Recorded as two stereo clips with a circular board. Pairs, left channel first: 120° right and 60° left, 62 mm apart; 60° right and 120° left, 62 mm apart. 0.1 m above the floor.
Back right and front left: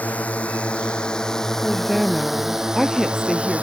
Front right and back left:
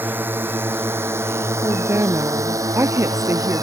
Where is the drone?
175° left; by 3.6 s 125° left.